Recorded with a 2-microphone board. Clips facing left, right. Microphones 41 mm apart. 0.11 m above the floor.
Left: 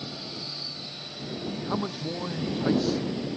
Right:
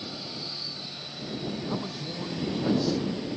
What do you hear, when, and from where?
1.7 s a man speaking: 30° left (ahead or behind)